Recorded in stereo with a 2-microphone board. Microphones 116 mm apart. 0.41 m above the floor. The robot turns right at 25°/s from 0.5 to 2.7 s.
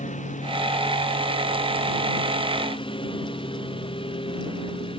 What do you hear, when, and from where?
0.0 s a lawn mower: 80° left; by 5.0 s 45° left (ahead or behind)